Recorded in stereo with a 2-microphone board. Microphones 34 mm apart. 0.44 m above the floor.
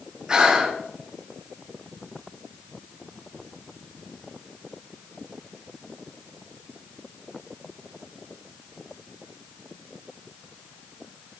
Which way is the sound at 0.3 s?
25° right (ahead or behind).